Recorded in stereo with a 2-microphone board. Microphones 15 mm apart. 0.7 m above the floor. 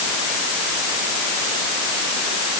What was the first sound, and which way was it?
Only background noise.